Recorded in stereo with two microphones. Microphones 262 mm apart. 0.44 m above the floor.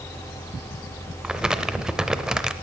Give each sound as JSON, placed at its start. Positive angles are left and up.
{"t": 1.2, "sound": "crumpling", "side_deg": -5, "distance_m": 0.6}